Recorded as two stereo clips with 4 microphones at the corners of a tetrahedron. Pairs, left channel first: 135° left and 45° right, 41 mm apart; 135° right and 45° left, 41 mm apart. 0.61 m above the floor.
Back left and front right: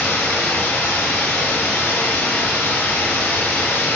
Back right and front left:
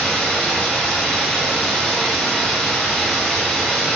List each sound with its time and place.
0.0 s running water: 140° left, 1.6 m